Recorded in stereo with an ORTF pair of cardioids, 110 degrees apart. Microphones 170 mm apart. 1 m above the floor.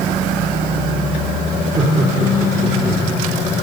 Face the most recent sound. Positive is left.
turn(degrees=-50)